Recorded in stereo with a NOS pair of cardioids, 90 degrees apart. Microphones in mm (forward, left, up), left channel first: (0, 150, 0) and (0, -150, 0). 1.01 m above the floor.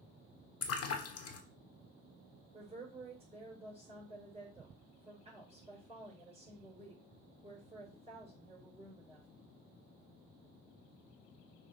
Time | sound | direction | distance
0.6 | a splash | 50° left | 1.5 m
2.5 | a woman speaking | 15° right | 4.5 m